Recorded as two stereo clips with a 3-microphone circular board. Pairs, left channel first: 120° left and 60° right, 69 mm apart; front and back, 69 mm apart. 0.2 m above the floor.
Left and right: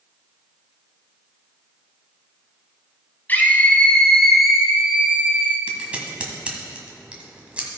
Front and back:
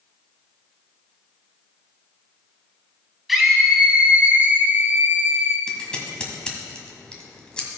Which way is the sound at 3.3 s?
95° left.